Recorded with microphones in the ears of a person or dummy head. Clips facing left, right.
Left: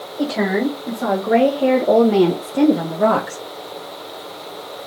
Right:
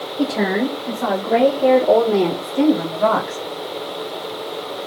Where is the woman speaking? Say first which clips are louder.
Even; 10° left (ahead or behind), 1.7 m; by 3.4 s 70° left (ahead or behind), 1.2 m.